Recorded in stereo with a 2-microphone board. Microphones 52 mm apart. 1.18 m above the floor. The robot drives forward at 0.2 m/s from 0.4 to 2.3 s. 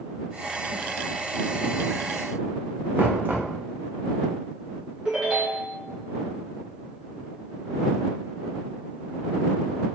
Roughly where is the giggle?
No giggle in this recording.